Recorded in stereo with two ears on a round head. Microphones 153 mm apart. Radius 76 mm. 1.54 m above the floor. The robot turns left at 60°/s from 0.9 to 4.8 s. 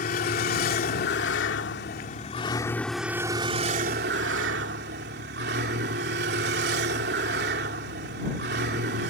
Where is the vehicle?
125° left; by 9.1 s 110° right.